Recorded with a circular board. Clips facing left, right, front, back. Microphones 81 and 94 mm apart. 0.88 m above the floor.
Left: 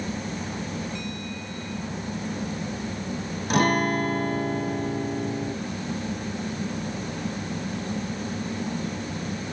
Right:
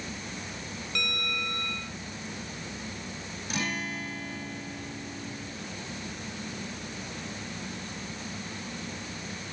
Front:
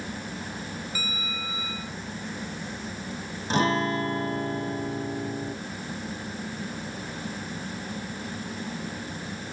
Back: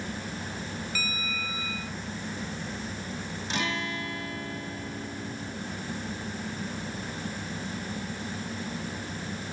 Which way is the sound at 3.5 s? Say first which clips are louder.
Left 12 dB, front 9 dB; 55° left.